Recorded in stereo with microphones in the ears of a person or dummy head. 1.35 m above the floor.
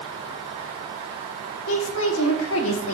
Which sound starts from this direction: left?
A woman speaking, at 1.7 s.